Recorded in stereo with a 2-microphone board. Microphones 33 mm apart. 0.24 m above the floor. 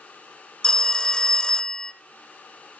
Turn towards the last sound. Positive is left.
turn(degrees=25)  # may be behind; listen again after turning